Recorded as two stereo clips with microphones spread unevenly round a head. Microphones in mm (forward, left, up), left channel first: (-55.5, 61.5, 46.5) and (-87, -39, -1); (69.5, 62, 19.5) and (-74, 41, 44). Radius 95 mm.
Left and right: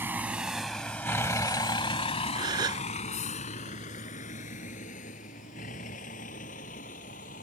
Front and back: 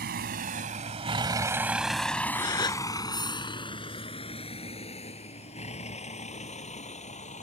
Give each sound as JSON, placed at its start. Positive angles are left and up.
{"t": 0.0, "sound": "a vehicle", "azimuth_deg": 175}
{"t": 2.4, "sound": "a gasp", "azimuth_deg": -55}